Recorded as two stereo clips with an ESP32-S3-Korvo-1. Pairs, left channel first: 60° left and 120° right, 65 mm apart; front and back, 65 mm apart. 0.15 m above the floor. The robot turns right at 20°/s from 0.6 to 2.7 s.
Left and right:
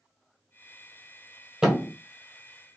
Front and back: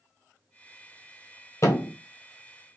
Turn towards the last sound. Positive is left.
turn(degrees=-20)